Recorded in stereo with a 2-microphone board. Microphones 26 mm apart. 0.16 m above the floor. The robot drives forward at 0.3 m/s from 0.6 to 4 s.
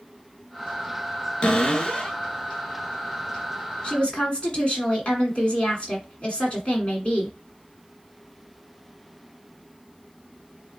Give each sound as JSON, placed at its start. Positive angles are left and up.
{"t": 1.4, "sound": "a cupboard door", "side_deg": 30, "distance_m": 0.8}
{"t": 3.8, "sound": "a woman speaking", "side_deg": 40, "distance_m": 1.6}